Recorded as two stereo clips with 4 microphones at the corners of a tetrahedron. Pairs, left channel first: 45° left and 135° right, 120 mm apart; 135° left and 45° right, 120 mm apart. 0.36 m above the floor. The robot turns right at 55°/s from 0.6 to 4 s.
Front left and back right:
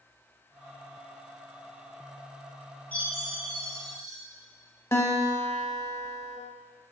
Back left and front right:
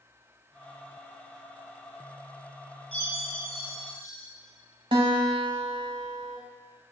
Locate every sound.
2.9 s a chime: 120° left, 1.9 m; by 4.2 s straight behind, 1.9 m
4.9 s a guitar: 20° right, 0.6 m